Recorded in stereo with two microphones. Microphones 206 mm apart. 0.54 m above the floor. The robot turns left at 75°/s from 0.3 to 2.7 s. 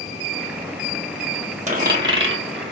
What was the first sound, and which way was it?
A dropped coin, 35° right (ahead or behind).